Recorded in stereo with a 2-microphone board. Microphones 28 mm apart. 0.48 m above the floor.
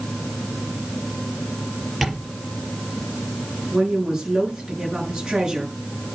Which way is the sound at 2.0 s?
Centre (ahead or behind).